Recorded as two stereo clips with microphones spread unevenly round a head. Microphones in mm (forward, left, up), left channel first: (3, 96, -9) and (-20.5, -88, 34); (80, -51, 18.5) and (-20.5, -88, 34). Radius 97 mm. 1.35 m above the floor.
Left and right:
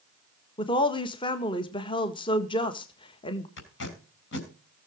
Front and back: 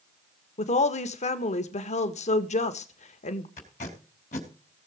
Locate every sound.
0.6 s a woman speaking: 15° left, 1.6 m
3.6 s tape being pulled: 50° left, 5 m